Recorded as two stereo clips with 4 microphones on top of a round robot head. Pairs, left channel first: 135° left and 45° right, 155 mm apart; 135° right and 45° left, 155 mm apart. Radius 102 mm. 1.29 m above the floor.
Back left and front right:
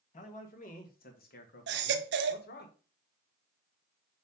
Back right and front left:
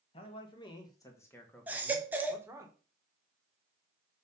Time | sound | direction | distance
0.1 | a man speaking | 170° left | 2 m
1.7 | a baby crying | 35° right | 0.6 m